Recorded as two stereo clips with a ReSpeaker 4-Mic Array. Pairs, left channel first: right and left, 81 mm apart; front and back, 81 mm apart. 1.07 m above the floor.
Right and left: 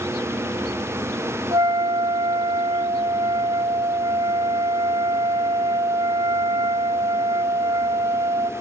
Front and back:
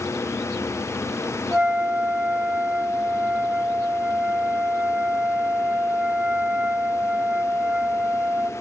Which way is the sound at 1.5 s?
105° left.